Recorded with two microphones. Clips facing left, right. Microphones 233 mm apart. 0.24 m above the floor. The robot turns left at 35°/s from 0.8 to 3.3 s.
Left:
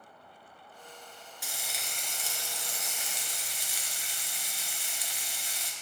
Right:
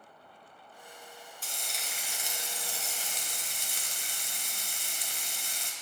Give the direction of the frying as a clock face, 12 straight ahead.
12 o'clock.